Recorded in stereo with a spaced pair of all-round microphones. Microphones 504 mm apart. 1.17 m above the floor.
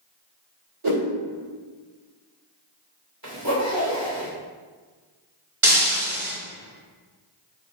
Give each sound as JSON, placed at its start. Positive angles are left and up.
{"t": 0.8, "sound": "a whoosh", "side_deg": -70, "distance_m": 1.9}
{"t": 3.2, "sound": "a zipper", "side_deg": -40, "distance_m": 3.0}
{"t": 5.6, "sound": "breaking glass", "side_deg": -75, "distance_m": 2.0}